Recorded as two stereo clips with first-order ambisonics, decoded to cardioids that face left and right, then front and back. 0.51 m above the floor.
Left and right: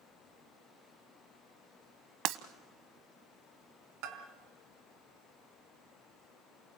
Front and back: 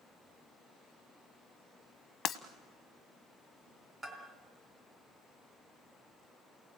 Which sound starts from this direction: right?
A bell, at 4.0 s.